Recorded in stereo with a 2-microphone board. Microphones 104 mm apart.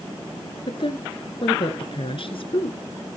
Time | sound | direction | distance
0.7 | a woman speaking | 60° left (ahead or behind) | 1.9 m